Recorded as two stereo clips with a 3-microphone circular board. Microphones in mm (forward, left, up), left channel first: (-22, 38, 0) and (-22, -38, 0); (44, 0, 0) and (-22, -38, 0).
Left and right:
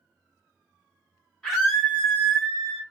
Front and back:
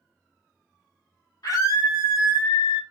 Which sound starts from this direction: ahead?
A scream, at 1.4 s.